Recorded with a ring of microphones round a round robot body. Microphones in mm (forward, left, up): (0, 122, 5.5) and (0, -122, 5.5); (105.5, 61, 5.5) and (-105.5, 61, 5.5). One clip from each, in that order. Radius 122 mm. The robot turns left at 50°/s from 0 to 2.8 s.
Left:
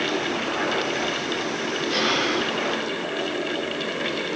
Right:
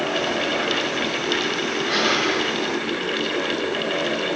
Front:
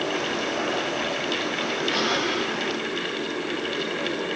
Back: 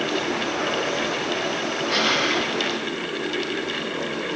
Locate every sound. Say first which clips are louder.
1.9 s breathing: right 2 dB, back 5 dB; 135° right, 5.5 m; by 2.5 s 165° right, 5.5 m